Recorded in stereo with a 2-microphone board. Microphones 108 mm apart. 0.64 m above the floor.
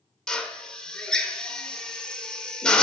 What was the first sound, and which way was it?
A drill, 5° left (ahead or behind).